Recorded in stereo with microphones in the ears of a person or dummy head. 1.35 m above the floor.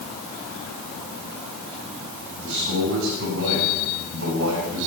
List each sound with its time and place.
2.4 s a man speaking: 65° right (ahead or behind), 6.5 m; by 4.9 s 85° right, 6 m